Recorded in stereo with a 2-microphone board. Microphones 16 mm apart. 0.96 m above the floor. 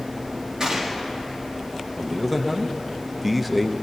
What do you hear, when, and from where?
0.6 s a gunshot: 45° right (ahead or behind), 1.7 m
2.0 s a man speaking: 5° right (ahead or behind), 0.6 m